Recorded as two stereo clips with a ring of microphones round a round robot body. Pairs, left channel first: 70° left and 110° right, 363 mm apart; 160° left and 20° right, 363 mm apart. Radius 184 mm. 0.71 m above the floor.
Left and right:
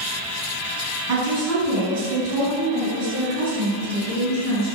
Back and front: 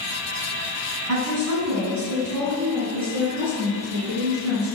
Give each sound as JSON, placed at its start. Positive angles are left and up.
{"t": 1.1, "sound": "a woman speaking", "azimuth_deg": -70, "distance_m": 6.0}